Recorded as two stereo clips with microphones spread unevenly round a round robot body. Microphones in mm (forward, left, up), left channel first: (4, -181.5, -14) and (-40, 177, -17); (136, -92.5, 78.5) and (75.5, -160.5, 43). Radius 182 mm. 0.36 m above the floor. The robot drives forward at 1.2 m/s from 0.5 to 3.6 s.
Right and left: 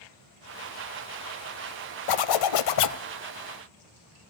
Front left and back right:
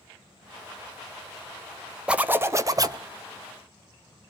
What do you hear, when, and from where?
2.1 s a zipper: 65° right, 1.3 m; by 3.0 s 125° right, 1.4 m